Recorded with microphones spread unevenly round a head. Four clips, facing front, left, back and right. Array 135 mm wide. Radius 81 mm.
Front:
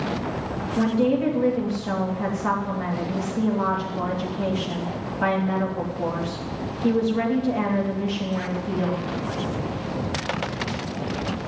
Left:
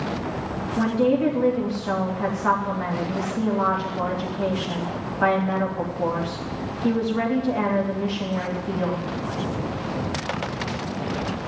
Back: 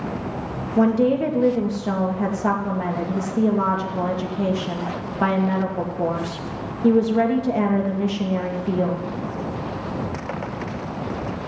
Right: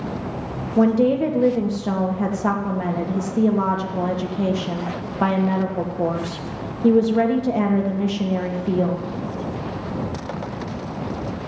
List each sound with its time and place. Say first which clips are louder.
0.8 s a woman speaking: right 4 dB, back 3 dB; 110° right, 2.5 m